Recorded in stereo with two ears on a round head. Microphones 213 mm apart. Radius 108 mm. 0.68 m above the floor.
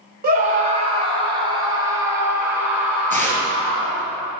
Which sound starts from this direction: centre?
Tearing paper, at 3.1 s.